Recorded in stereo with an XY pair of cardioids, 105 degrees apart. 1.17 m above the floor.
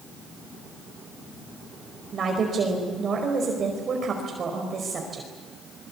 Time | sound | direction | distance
2.1 | a woman speaking | 45° right | 5 m